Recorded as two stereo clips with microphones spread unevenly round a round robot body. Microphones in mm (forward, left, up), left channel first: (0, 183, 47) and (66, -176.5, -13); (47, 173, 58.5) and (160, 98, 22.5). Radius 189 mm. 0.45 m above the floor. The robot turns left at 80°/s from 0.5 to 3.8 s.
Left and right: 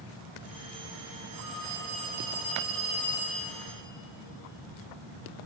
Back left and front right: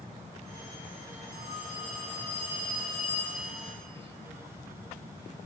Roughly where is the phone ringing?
Ahead right.